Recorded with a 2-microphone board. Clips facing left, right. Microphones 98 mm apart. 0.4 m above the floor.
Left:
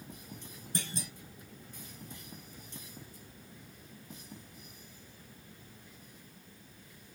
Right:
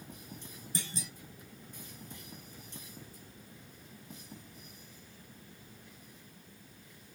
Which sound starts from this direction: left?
A clunk, at 0.8 s.